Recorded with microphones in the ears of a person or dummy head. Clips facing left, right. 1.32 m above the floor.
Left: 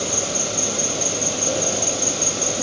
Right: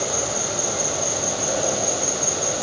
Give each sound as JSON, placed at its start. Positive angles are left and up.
{"t": 0.0, "sound": "an insect", "side_deg": 40, "distance_m": 1.8}